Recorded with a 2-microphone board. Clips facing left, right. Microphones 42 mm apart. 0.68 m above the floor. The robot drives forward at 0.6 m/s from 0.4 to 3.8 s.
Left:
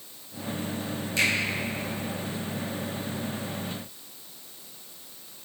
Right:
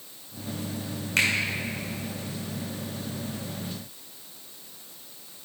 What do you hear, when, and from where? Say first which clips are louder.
1.2 s a finger snap: right 1 dB; 65° right (ahead or behind), 2 m